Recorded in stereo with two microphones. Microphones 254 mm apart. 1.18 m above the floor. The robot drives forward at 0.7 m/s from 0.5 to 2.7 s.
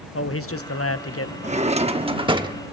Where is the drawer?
25° right (ahead or behind), 0.7 m; by 2.6 s 15° right (ahead or behind), 1.1 m.